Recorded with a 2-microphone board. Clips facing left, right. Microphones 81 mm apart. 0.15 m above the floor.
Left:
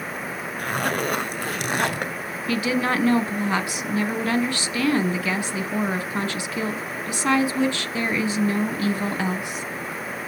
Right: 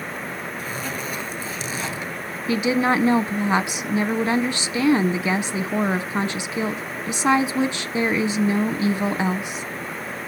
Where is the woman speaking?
20° right (ahead or behind), 1.0 m.